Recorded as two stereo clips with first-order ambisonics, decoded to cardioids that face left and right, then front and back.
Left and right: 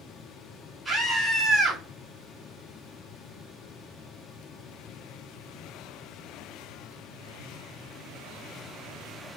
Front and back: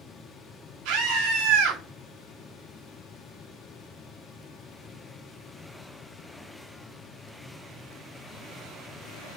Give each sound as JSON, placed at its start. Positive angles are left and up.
{"t": 0.8, "sound": "a scream", "azimuth_deg": -170, "distance_m": 4.5}